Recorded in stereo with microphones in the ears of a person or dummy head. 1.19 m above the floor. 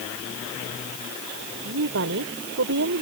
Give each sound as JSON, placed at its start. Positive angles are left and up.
{"t": 1.6, "sound": "a woman speaking", "side_deg": -65}